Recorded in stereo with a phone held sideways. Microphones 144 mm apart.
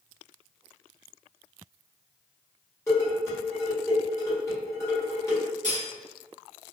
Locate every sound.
2.9 s dishes clattering: 20° left (ahead or behind), 1.5 m
5.6 s cutlery clinking: 60° right (ahead or behind), 1.2 m